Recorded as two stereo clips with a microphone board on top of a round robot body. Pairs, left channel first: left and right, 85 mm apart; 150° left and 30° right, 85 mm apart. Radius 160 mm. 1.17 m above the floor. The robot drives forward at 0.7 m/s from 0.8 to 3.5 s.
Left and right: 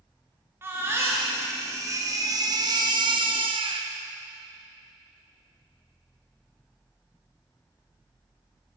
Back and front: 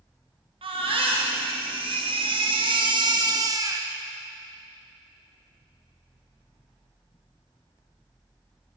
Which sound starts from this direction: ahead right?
A baby crying, at 0.6 s.